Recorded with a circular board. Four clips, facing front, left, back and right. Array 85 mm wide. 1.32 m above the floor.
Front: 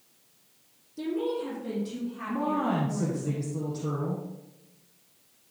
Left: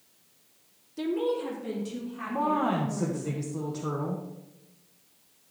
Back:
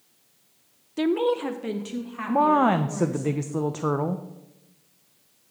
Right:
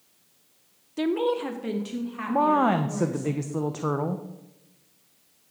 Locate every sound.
1.0 s a woman speaking: 150° right, 0.6 m; by 3.3 s 140° right, 3.5 m
2.3 s a woman speaking: 150° right, 0.6 m